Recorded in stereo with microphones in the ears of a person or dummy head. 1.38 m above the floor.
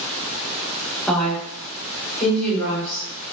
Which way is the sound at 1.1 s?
5° left (ahead or behind).